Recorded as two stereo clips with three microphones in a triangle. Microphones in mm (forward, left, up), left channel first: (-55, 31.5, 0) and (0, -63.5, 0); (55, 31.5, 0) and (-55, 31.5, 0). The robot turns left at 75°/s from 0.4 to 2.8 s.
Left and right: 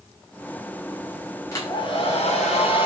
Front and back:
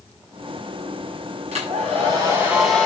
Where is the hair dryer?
Straight behind, 6.5 m; by 2.9 s 85° left, 6.5 m.